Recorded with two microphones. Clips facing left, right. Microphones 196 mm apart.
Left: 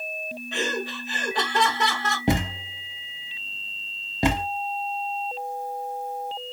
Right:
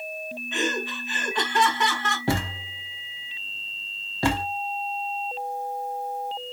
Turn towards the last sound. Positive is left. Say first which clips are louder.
# left 3 dB
turn(degrees=20)  # may be behind; listen again after turning